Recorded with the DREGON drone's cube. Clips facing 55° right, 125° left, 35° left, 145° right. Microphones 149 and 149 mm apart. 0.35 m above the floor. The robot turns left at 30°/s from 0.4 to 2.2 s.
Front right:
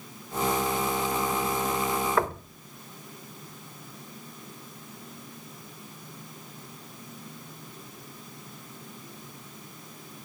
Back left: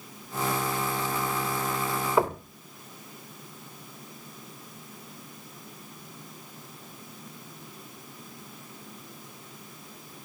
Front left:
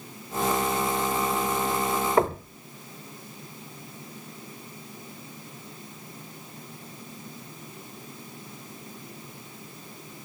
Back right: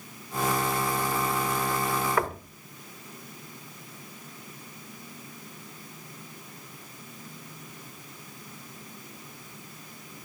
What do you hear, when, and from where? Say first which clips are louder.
2.2 s knocking: back left 7 dB, front left 6 dB; 65° left, 0.9 m